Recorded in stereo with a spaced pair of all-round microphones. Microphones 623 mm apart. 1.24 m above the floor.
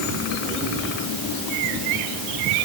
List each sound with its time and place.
Only background noise.